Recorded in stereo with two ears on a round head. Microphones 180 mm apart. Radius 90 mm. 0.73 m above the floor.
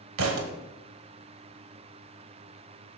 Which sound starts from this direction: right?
A thud, at 0.2 s.